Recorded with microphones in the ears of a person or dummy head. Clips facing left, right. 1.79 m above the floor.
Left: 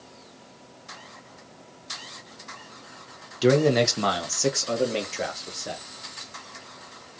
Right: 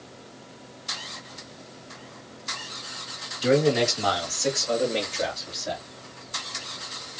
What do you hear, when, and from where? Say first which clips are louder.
3.4 s a man speaking: left 1 dB; 70° left (ahead or behind), 1.2 m; by 5.8 s 45° left (ahead or behind), 2.5 m